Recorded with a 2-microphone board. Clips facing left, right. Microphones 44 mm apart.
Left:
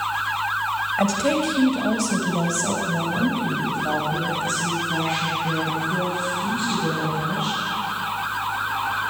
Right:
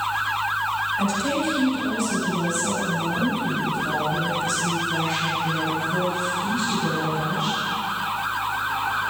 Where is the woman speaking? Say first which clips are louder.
Left 2 dB; 65° left (ahead or behind), 3 m; by 7.6 s 20° left (ahead or behind), 7.5 m.